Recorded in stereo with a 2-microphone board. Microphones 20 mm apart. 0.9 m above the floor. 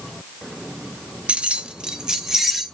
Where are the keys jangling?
80° right, 0.6 m; by 2.6 s 20° right (ahead or behind), 1.5 m.